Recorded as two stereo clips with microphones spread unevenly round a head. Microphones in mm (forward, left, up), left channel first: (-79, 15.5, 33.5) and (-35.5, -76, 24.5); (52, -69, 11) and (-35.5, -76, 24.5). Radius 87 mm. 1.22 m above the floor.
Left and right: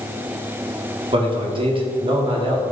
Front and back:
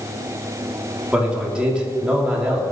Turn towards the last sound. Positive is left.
turn(degrees=-95)